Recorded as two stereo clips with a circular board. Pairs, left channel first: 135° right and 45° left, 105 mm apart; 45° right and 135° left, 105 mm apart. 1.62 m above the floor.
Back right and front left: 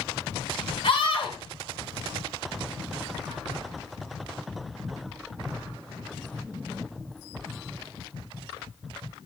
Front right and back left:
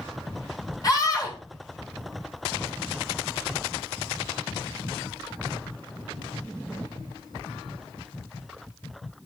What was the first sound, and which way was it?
A scream, 100° right.